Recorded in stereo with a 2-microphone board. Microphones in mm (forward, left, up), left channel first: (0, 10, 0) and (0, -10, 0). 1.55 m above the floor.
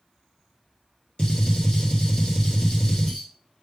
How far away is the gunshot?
About 1.4 m.